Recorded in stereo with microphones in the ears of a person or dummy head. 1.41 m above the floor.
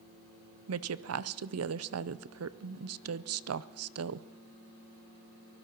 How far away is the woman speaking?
About 0.6 m.